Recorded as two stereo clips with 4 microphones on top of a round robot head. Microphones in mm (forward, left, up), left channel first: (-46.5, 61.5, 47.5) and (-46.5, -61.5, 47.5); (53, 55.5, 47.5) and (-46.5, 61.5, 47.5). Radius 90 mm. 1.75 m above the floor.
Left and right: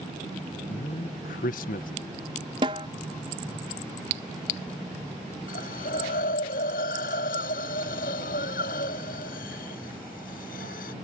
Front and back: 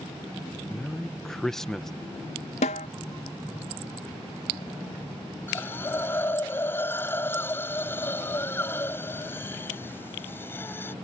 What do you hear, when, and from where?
0.7 s a man speaking: 85° left
2.6 s a snare drum: 30° right
5.5 s a hiss: 65° left